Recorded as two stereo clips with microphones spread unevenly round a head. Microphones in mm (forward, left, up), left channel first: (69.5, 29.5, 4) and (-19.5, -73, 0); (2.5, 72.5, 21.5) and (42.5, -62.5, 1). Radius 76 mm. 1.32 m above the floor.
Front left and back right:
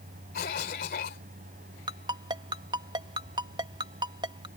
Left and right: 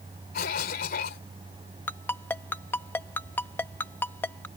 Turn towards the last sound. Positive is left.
turn(degrees=175)